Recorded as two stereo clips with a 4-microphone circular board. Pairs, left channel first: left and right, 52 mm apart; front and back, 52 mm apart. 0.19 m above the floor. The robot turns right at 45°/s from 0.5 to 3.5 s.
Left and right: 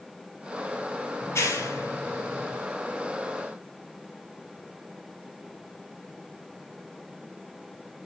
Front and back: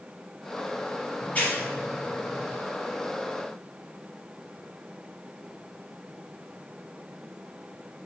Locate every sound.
1.2 s a clap: 50° left, 3 m; by 2.6 s 115° left, 3 m